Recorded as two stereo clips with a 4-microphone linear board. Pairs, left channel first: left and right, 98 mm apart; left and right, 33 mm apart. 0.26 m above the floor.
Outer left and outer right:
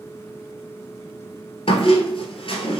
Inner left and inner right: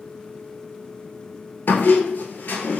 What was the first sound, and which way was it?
A squeak, 70° left (ahead or behind).